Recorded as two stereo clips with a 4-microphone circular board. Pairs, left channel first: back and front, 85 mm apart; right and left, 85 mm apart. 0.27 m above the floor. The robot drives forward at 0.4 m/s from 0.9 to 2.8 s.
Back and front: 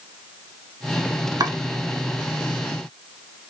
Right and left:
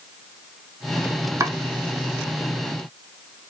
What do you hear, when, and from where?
1.4 s chopping: 40° left, 0.6 m; by 1.6 s 45° left, 0.5 m